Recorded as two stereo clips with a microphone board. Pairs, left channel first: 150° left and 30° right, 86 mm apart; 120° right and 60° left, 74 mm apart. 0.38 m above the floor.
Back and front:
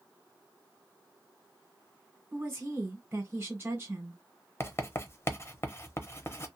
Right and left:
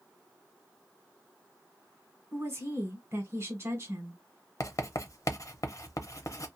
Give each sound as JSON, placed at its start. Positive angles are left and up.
{"t": 2.3, "sound": "a woman speaking", "azimuth_deg": 25, "distance_m": 1.3}
{"t": 4.6, "sound": "writing", "azimuth_deg": -155, "distance_m": 0.7}